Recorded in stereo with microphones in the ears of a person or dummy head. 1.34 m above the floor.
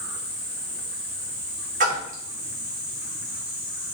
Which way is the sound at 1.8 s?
30° right (ahead or behind).